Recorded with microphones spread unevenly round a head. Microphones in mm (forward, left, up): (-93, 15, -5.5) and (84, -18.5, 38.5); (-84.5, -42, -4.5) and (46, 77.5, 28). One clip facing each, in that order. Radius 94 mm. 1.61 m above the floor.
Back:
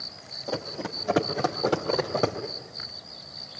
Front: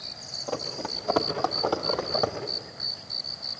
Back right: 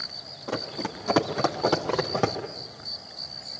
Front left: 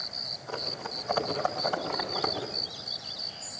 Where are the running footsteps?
105° right, 3.5 m; by 2.4 s 125° right, 3.5 m.